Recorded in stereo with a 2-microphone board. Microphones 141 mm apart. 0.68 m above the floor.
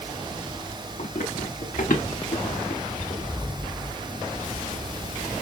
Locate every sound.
1.0 s running footsteps: 70° left (ahead or behind), 4.5 m